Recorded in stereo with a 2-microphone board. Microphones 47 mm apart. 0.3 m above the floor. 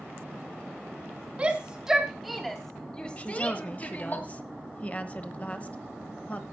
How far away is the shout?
About 1.7 m.